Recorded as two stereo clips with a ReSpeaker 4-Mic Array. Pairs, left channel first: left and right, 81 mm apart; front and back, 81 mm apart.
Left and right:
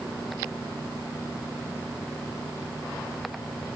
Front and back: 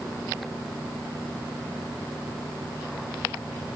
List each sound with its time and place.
Only background noise.